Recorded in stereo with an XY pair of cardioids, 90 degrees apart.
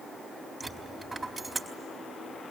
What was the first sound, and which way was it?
A dropped coin, 20° right.